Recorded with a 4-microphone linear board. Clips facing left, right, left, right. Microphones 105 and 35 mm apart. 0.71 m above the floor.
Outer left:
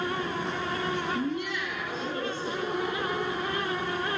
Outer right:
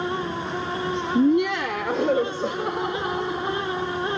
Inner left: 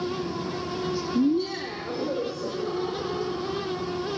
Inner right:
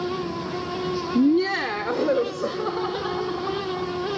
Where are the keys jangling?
No keys jangling in this recording.